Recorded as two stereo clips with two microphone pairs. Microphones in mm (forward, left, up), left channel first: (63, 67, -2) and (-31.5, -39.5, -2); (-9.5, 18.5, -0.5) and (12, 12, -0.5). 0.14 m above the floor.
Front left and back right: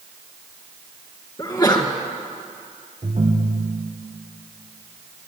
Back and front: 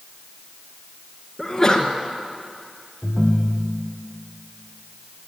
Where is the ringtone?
95° right, 4 m.